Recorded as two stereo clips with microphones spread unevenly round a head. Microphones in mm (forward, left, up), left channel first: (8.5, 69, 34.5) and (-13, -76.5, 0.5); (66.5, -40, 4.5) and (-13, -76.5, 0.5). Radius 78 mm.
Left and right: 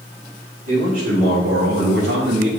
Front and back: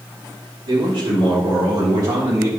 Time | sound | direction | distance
0.7 | a man speaking | 140° right | 3.5 m